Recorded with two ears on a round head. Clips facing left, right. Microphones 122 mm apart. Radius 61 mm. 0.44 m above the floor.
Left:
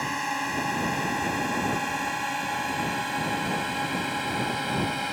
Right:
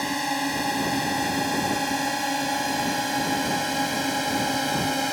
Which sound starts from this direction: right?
A drone, at 0.0 s.